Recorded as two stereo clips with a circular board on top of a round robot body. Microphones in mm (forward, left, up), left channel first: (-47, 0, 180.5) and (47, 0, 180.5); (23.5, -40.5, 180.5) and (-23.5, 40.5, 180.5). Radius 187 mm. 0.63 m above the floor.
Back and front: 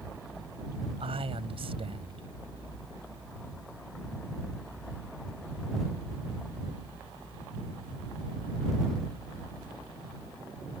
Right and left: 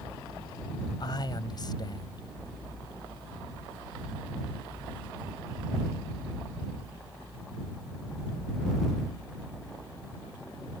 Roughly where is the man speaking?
Ahead.